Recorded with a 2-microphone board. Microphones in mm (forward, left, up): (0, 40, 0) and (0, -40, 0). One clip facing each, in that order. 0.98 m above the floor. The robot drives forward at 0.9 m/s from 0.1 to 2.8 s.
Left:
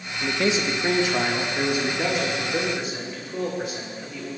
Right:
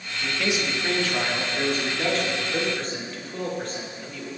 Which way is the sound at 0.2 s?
35° left (ahead or behind).